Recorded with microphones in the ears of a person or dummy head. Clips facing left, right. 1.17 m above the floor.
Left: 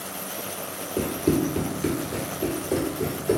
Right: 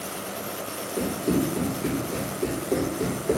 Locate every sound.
1.0 s running footsteps: 35° left (ahead or behind), 1.4 m; by 3.4 s 10° right (ahead or behind), 1.6 m